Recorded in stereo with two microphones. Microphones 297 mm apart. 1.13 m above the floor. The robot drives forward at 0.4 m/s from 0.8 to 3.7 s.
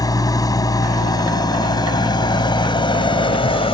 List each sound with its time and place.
0.0 s an engine running: 10° left (ahead or behind); by 3.7 s 20° left (ahead or behind)